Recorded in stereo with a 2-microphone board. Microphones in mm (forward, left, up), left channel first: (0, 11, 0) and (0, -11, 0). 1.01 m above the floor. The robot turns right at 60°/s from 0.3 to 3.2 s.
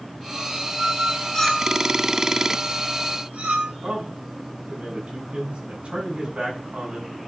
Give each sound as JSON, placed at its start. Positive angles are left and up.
{"t": 1.3, "sound": "a clink", "side_deg": 25, "distance_m": 6.0}
{"t": 3.8, "sound": "a man speaking", "side_deg": -60, "distance_m": 7.5}